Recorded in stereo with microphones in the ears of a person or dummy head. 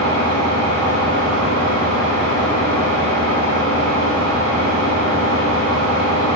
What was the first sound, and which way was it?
An engine running, 75° right (ahead or behind).